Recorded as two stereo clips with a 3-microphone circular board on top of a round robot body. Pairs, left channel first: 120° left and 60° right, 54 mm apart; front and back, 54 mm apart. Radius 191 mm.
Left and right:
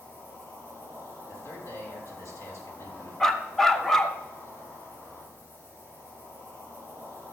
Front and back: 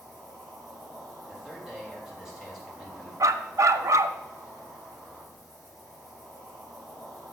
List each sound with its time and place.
0.0 s an insect: 95° left, 4 m
1.3 s a man speaking: 100° left, 3 m
3.2 s a dog barking: 155° right, 0.6 m